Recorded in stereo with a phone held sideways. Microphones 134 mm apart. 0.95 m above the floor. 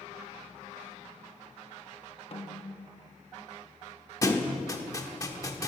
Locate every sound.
2.3 s a snare drum: 45° left (ahead or behind), 0.8 m
4.2 s a thud: 25° left (ahead or behind), 1.0 m